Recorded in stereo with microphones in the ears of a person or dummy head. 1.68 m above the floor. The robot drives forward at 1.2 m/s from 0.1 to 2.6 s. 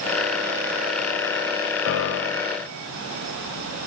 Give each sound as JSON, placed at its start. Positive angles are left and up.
{"t": 1.9, "sound": "a piano", "side_deg": 80, "distance_m": 0.8}